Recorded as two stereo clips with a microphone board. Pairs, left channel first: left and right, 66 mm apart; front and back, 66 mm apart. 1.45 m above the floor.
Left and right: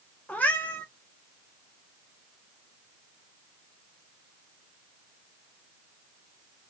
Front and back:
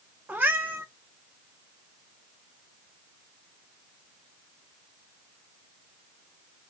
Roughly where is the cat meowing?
Behind left.